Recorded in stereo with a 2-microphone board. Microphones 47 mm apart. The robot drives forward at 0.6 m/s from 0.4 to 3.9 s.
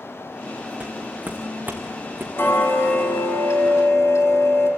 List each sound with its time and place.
0.8 s footsteps: 25° right (ahead or behind), 2.5 m; by 2.3 s 50° right (ahead or behind), 3 m
2.4 s ticking: 55° left (ahead or behind), 2.5 m; by 4.7 s 80° left, 2 m